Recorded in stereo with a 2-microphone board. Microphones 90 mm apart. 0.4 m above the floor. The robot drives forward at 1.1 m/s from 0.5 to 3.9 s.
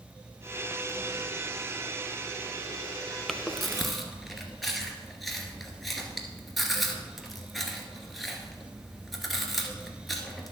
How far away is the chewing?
About 0.5 m.